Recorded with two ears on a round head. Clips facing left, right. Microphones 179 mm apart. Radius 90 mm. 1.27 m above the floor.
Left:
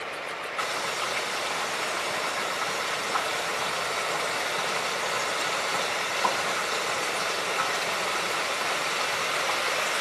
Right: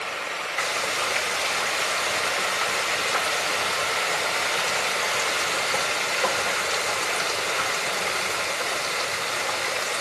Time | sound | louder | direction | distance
0.6 | frying | right 3 dB | 70° right (ahead or behind) | 2.5 m